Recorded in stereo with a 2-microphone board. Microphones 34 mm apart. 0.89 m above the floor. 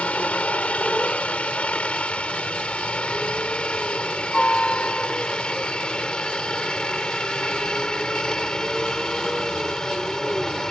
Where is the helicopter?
40° left (ahead or behind); by 10.7 s 20° left (ahead or behind).